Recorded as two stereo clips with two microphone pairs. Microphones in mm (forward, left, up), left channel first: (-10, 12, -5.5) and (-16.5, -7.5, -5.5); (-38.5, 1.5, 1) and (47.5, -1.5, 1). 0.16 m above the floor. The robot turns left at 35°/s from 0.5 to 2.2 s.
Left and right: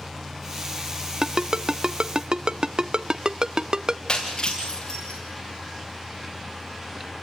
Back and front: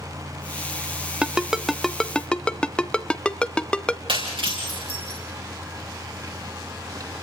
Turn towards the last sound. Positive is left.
turn(degrees=15)